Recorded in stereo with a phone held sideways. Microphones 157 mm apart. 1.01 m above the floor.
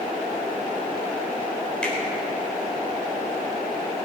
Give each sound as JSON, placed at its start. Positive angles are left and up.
{"t": 1.8, "sound": "a finger snap", "side_deg": 5, "distance_m": 4.0}